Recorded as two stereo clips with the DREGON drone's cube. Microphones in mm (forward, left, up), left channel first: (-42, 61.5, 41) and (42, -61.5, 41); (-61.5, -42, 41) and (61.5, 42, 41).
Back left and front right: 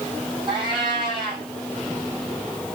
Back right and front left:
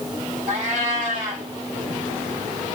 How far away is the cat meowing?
About 3 m.